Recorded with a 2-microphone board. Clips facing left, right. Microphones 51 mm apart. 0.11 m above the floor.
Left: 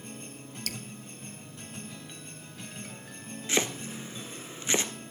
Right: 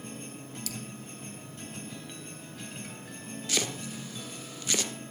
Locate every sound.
0.7 s dripping: 55° left (ahead or behind), 0.7 m
3.5 s chopping: 30° left (ahead or behind), 1.2 m